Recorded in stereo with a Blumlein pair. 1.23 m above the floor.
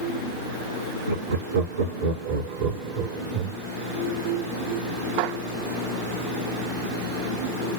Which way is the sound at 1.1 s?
70° right.